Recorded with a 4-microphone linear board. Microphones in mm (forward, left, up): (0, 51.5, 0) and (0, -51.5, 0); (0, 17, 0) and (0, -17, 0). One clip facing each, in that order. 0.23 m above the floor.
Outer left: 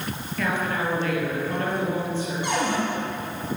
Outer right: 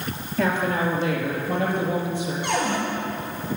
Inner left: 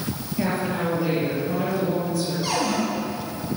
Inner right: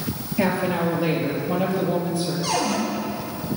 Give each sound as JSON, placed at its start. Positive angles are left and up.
{"t": 0.4, "sound": "a woman speaking", "side_deg": -25, "distance_m": 5.0}
{"t": 2.4, "sound": "a cupboard door", "side_deg": 15, "distance_m": 6.5}